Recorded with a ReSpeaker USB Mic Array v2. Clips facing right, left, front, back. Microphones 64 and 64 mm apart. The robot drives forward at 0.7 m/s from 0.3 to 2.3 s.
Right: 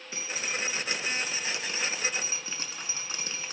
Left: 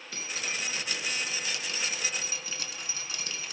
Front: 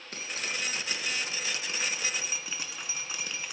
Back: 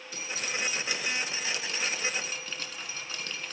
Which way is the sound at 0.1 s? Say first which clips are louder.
Right 2 dB, back 1 dB; 25° right.